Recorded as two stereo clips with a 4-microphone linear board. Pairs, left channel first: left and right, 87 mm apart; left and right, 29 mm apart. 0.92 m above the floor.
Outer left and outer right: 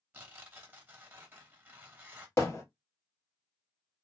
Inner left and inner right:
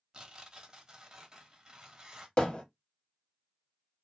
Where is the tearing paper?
25° right (ahead or behind), 0.8 m.